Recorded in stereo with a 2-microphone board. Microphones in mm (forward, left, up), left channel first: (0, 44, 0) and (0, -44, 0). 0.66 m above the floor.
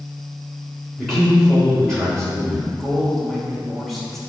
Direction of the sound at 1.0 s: 5° left (ahead or behind).